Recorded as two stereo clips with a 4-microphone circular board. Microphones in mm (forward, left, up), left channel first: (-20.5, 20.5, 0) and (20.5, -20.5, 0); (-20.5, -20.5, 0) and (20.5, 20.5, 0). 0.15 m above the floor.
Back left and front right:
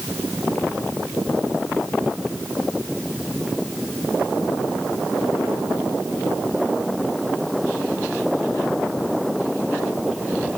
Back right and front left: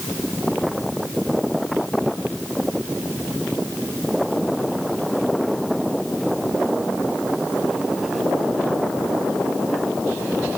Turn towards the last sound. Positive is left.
No sound to turn to.